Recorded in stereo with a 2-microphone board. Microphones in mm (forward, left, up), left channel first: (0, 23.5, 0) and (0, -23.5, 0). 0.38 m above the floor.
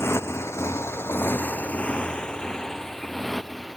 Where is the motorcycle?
75° left (ahead or behind); by 3.8 s centre (ahead or behind).